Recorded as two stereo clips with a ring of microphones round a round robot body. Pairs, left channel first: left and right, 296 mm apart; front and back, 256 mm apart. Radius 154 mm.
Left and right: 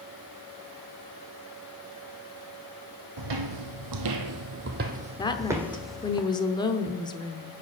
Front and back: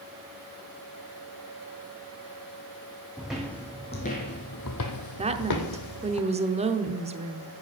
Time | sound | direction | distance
3.2 | footsteps | 95° right | 1.1 m
5.2 | a woman speaking | 150° left | 0.8 m